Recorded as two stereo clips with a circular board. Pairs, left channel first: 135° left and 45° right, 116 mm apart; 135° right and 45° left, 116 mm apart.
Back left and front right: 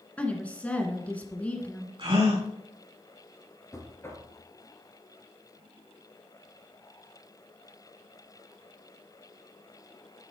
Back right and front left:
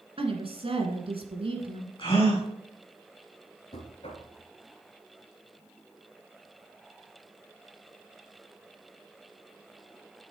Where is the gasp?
90° right, 4.5 m.